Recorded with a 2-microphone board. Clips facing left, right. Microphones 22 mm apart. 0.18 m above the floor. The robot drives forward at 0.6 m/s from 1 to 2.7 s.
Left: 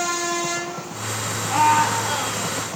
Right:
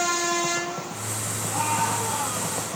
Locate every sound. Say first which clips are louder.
1.5 s a scream: left 8 dB; 55° left (ahead or behind), 2.5 m; by 2.6 s 60° left (ahead or behind), 2.5 m